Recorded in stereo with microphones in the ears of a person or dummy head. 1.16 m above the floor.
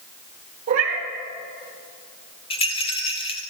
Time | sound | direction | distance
0.7 | a cat meowing | 50° right (ahead or behind) | 1.3 m
2.5 | a rattle | 25° left (ahead or behind) | 0.6 m